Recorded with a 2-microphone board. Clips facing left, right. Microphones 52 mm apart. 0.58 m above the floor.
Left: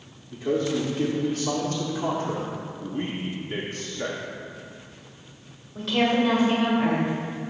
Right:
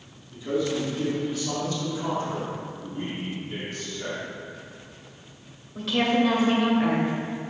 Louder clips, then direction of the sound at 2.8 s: Left 5 dB; 40° left (ahead or behind).